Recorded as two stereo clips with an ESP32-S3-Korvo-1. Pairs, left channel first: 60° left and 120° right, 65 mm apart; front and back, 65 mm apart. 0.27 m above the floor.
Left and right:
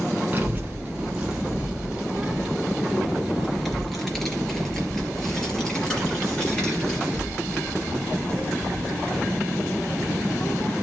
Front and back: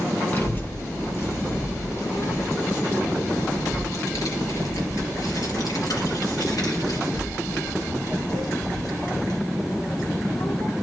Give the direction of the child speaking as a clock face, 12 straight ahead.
2 o'clock.